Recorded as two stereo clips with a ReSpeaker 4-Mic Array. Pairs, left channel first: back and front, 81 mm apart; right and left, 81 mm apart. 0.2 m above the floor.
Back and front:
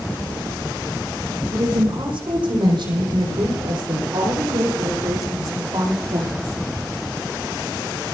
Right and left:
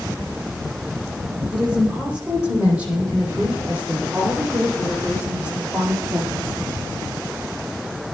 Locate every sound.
1.5 s a woman speaking: 10° left, 9 m; by 6.6 s 25° left, 6.5 m